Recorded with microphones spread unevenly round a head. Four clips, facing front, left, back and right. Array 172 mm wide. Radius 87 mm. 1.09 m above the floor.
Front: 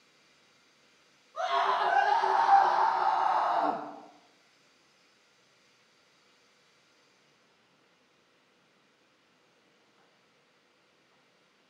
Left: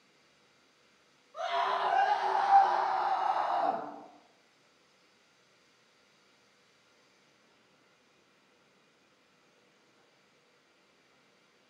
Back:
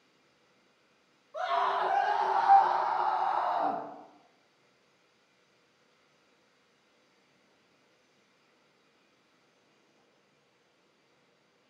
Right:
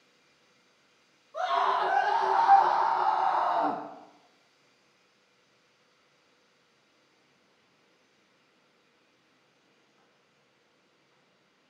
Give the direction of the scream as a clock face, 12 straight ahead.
4 o'clock.